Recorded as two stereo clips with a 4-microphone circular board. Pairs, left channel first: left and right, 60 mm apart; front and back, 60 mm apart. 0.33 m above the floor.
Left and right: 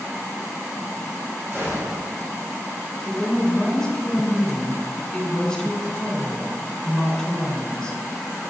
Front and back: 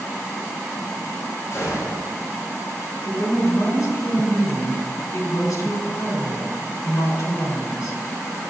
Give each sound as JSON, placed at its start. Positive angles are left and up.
{"t": 1.5, "sound": "a gunshot", "azimuth_deg": -40, "distance_m": 4.5}
{"t": 3.0, "sound": "a woman speaking", "azimuth_deg": 15, "distance_m": 3.0}